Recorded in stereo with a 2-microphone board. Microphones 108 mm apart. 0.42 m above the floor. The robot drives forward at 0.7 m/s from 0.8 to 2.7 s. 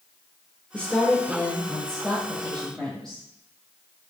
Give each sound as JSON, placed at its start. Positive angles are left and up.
{"t": 0.7, "sound": "a woman speaking", "side_deg": 15, "distance_m": 1.3}